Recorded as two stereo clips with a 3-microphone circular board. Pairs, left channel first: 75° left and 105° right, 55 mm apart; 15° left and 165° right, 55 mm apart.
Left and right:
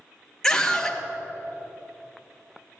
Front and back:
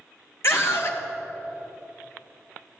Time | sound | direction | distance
0.4 | a scream | 5° right | 2.5 m